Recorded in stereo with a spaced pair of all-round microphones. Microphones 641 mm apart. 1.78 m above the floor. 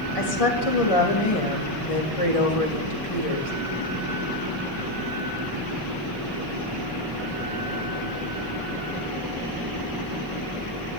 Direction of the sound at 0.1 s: 60° left (ahead or behind).